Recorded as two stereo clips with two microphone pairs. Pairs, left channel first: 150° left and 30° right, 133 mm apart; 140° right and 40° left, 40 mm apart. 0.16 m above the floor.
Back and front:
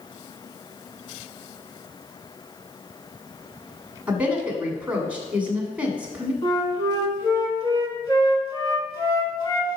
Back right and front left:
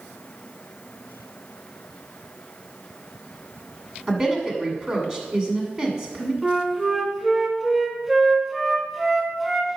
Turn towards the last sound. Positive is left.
turn(degrees=115)